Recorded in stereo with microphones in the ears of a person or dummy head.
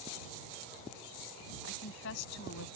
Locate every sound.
1.6 s a woman speaking: 75° left (ahead or behind)